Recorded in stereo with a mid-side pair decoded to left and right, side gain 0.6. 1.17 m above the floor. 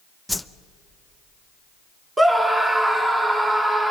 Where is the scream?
20° right, 5.5 m.